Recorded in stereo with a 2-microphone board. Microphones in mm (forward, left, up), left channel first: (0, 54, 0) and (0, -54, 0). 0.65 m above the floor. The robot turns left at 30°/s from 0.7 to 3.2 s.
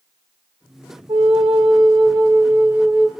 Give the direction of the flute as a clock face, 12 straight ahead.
4 o'clock.